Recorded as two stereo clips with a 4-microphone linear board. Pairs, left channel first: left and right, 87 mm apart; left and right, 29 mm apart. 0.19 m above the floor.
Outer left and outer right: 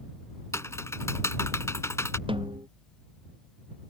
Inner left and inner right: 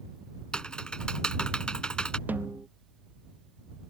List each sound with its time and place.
0.5 s typing on a keyboard: 35° left (ahead or behind)
2.3 s a snare drum: 80° right